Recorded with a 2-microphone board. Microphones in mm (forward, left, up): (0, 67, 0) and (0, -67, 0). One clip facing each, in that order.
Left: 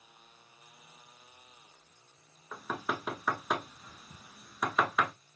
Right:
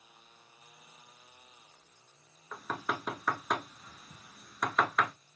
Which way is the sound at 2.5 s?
5° left (ahead or behind).